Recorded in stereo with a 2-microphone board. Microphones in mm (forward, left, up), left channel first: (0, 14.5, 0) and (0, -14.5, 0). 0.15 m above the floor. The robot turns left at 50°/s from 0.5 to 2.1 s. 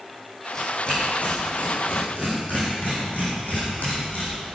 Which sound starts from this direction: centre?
Tearing paper, at 0.6 s.